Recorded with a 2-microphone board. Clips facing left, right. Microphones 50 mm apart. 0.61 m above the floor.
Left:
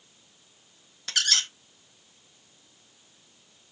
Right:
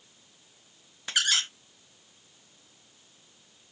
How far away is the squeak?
About 0.5 m.